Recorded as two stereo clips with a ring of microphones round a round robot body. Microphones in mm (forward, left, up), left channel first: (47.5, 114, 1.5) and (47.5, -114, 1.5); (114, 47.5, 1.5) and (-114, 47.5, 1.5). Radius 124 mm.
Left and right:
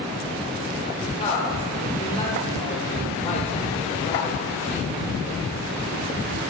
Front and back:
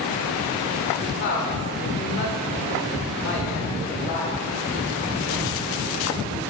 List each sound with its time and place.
1.0 s a woman speaking: 30° left, 1.5 m